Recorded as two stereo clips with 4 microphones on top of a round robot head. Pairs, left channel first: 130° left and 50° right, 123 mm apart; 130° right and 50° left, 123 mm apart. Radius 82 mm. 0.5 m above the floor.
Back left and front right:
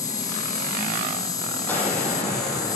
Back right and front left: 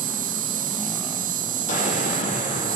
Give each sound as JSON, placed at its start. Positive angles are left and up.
{"t": 0.0, "sound": "an insect", "azimuth_deg": 65, "distance_m": 1.6}
{"t": 1.7, "sound": "an explosion", "azimuth_deg": -155, "distance_m": 10.0}